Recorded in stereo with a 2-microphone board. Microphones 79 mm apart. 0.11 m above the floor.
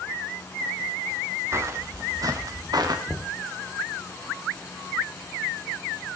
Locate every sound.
1.5 s footsteps: 35° right (ahead or behind), 2.5 m; by 3.0 s 60° right (ahead or behind), 3.5 m
3.1 s knocking: 5° right (ahead or behind), 1.4 m